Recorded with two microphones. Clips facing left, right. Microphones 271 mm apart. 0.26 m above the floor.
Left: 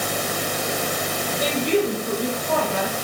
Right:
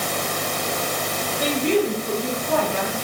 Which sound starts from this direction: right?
A woman speaking, at 1.4 s.